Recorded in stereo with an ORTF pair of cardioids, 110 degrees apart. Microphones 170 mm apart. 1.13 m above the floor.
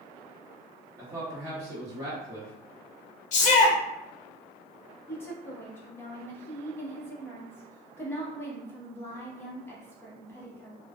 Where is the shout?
50° left, 0.8 m.